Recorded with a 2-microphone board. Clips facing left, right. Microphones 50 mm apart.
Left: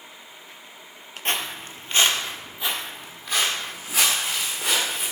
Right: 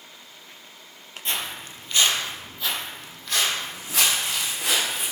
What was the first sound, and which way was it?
Footsteps, 45° left (ahead or behind).